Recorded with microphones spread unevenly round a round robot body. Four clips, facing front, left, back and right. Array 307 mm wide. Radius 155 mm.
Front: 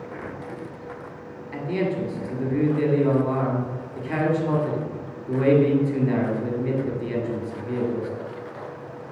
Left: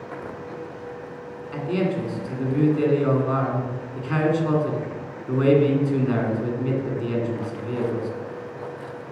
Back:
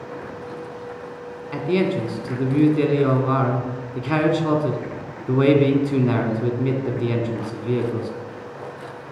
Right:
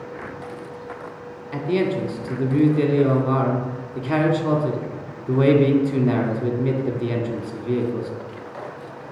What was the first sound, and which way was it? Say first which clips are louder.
A man speaking: right 3 dB, back 4 dB; 135° right.